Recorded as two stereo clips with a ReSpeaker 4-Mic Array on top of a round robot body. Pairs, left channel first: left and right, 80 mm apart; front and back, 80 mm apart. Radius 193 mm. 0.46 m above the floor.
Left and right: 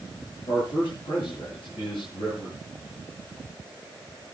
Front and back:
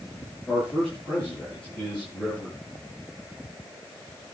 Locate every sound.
0.5 s a man speaking: 80° left, 8.5 m